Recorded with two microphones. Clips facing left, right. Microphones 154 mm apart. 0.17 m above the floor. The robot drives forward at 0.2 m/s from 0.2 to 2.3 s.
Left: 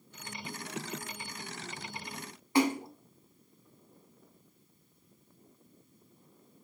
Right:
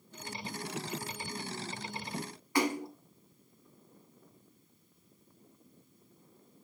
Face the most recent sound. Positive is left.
turn(degrees=25)  # may be behind; listen again after turning